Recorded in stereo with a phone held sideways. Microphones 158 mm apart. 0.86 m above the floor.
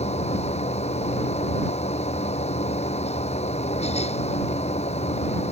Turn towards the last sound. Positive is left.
turn(degrees=40)  # may be behind; listen again after turning